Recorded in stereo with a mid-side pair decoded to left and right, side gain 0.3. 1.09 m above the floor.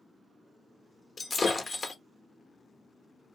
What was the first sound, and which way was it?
Breaking glass, 55° left.